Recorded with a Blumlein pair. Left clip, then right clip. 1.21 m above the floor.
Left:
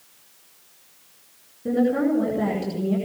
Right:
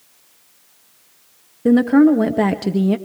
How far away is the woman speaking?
About 1.2 m.